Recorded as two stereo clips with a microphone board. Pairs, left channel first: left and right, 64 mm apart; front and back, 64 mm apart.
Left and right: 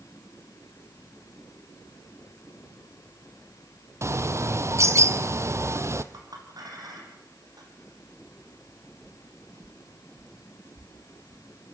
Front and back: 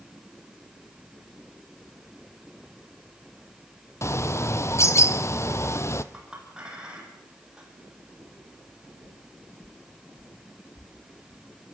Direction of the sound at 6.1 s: 105° right.